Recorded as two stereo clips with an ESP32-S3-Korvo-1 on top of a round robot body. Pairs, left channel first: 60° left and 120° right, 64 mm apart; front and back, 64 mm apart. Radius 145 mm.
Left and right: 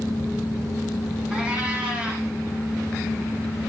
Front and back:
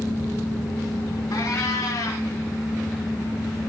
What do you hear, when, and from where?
1.3 s a cat meowing: 40° right, 2 m